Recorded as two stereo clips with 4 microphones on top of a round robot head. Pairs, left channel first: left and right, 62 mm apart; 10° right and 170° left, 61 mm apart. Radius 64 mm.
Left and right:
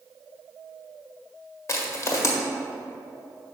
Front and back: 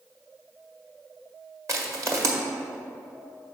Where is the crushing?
130° left, 1.3 m.